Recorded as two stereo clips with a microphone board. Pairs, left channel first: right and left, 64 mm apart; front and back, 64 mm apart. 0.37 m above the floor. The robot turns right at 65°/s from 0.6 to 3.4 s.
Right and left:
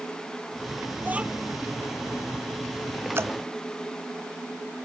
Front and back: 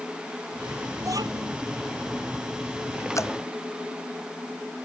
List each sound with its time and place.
1.0 s a child speaking: 145° left; by 1.5 s straight behind
3.1 s dripping: 40° left; by 3.3 s 50° left